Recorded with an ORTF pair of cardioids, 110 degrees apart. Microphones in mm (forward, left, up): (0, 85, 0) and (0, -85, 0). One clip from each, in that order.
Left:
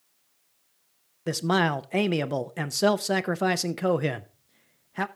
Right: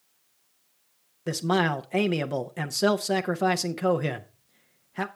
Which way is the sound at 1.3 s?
10° left.